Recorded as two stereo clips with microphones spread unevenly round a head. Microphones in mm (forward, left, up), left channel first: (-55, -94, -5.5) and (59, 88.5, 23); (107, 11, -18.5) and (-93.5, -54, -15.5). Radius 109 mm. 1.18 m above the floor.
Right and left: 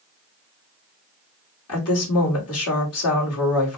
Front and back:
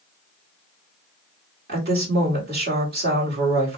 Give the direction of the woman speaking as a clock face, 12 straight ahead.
4 o'clock.